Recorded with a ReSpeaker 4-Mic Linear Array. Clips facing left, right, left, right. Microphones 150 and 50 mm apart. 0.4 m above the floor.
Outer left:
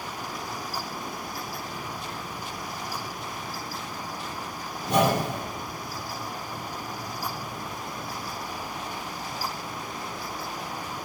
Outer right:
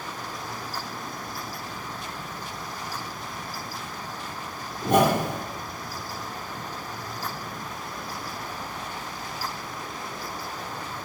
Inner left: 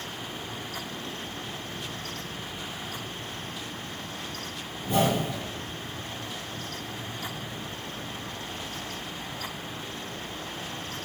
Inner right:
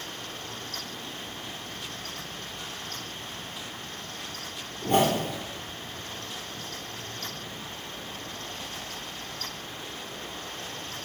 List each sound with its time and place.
4.8 s a whoosh: 55° right (ahead or behind), 1.9 m